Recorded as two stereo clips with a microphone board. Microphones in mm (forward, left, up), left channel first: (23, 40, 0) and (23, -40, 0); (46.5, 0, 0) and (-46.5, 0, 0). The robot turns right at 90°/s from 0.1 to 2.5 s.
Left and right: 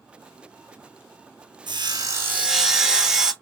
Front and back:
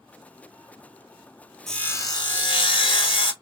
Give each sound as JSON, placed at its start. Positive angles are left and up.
{"t": 1.7, "sound": "sawing", "azimuth_deg": -85, "distance_m": 0.9}